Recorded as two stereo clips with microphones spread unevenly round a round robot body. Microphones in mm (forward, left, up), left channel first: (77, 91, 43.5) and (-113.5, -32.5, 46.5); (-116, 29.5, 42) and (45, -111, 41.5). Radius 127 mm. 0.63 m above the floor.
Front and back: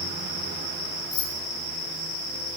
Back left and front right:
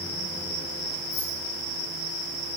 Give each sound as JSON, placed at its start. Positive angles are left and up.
{"t": 1.1, "sound": "keys jangling", "azimuth_deg": 75, "distance_m": 8.0}